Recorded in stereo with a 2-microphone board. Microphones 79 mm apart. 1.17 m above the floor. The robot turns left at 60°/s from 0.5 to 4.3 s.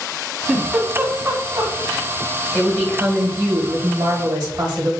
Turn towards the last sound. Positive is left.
turn(degrees=-85)